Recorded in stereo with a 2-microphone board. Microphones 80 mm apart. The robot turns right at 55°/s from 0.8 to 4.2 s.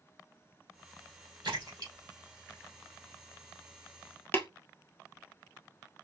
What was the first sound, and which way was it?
A splash, 75° right (ahead or behind).